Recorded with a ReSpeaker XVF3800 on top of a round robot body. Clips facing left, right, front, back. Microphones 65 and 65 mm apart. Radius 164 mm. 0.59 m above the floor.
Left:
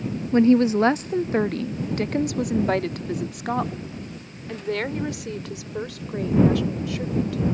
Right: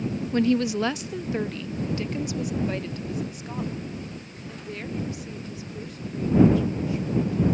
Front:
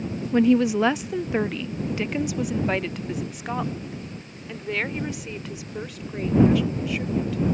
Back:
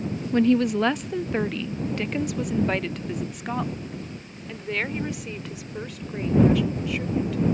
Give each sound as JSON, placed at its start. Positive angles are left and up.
{"t": 0.3, "sound": "a woman speaking", "azimuth_deg": 75}